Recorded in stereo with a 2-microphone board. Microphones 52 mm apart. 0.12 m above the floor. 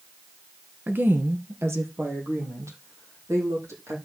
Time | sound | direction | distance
0.9 | a woman speaking | 35° right (ahead or behind) | 1.4 m